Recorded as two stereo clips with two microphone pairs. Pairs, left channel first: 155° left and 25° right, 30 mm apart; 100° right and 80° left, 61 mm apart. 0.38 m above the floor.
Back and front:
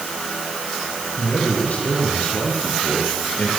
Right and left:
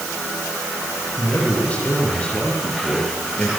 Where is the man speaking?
170° right, 9 m.